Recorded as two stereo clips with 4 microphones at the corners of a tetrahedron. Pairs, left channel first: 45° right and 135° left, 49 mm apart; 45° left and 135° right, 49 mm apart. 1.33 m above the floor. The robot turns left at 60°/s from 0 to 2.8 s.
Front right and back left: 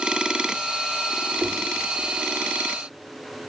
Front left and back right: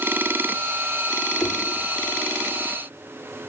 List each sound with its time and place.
1.4 s knocking: 60° left, 2.5 m; by 1.6 s 50° left, 2.5 m